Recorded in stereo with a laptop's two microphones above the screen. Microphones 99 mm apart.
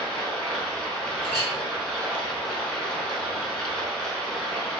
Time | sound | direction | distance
0.0 | running water | 5° left (ahead or behind) | 1.0 m
1.2 | a clink | 20° left (ahead or behind) | 1.4 m